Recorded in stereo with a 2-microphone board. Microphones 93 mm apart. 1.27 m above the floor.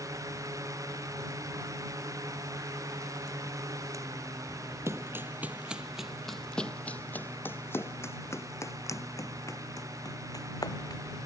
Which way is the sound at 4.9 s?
30° right (ahead or behind).